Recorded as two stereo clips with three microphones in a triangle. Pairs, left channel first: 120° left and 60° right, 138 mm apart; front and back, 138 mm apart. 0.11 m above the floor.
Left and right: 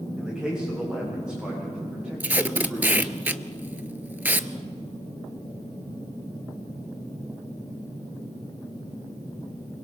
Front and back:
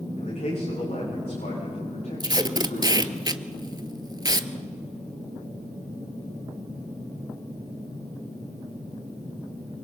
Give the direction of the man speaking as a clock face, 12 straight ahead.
11 o'clock.